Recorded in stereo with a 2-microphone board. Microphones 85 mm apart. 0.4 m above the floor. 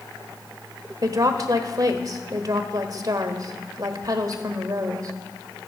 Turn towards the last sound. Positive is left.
turn(degrees=-45)  # may be behind; listen again after turning